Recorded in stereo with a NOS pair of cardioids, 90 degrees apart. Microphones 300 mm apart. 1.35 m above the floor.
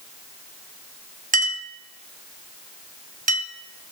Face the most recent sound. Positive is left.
turn(degrees=-25)